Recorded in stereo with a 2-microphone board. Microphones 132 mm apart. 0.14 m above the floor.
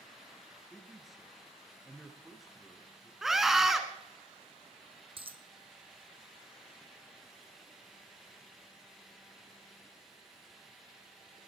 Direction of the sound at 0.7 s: Centre (ahead or behind).